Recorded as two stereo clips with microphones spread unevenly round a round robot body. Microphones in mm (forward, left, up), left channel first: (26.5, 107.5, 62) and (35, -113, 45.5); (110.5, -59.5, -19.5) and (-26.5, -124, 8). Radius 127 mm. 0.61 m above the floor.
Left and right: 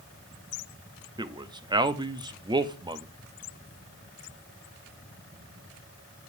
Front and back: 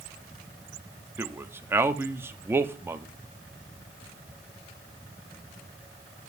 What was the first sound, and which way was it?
A man speaking, 75° right.